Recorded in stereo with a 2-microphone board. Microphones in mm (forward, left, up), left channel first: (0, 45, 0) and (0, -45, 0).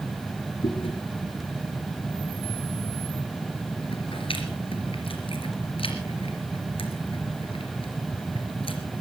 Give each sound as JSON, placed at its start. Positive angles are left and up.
{"t": 0.6, "sound": "chewing", "side_deg": 85, "distance_m": 3.0}